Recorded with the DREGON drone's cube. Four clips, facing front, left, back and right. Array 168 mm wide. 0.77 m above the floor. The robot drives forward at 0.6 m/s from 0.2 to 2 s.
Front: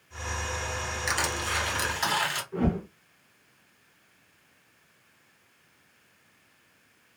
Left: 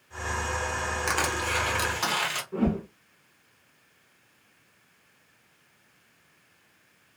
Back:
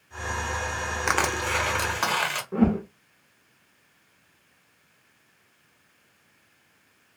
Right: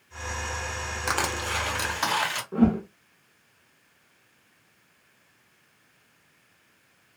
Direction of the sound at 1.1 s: 160° right.